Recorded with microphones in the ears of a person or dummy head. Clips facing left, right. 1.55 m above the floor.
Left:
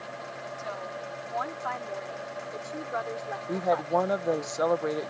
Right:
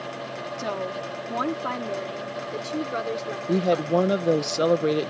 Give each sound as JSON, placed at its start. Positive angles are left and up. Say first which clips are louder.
{"t": 0.6, "sound": "a woman speaking", "louder": "right 9 dB", "side_deg": -75}
{"t": 3.5, "sound": "a woman speaking", "louder": "right 5 dB", "side_deg": -40}